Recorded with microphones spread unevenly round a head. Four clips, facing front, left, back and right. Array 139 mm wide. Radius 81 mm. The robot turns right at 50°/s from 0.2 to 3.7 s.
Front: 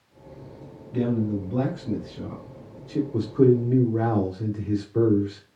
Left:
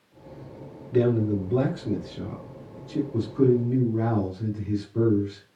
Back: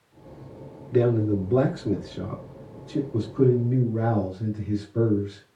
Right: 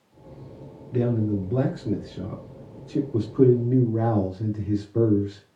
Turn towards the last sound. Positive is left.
turn(degrees=-75)